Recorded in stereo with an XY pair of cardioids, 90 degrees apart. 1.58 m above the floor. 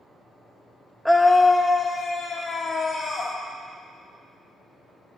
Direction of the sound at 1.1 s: Straight ahead.